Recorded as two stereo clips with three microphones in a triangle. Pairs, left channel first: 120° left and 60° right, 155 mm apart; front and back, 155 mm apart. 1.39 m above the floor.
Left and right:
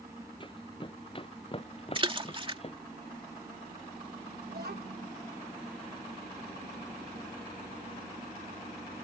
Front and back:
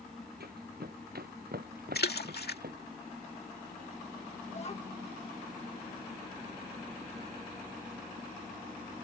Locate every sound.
0.4 s running footsteps: straight behind; by 2.8 s 170° left
1.9 s a splash: 5° right
4.5 s a child speaking: 50° right